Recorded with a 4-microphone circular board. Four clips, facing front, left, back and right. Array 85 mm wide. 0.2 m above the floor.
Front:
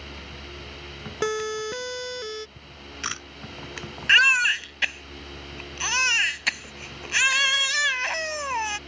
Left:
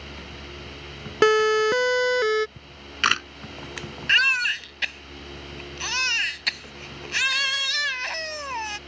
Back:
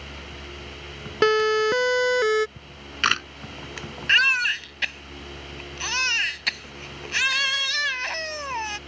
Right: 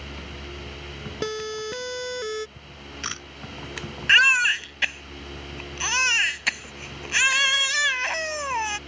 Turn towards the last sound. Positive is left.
turn(degrees=-60)